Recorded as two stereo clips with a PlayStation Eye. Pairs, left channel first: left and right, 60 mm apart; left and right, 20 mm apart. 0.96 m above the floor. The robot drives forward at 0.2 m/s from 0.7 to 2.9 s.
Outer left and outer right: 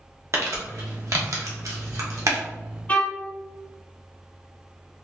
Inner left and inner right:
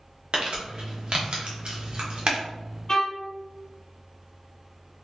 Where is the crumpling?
60° right (ahead or behind), 0.9 m.